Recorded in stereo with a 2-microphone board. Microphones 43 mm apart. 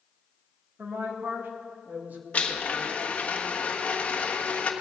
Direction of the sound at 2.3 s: 35° left (ahead or behind).